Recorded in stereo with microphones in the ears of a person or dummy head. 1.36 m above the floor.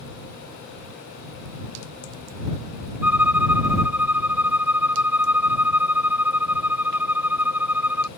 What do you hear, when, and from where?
3.0 s a violin: 10° right (ahead or behind)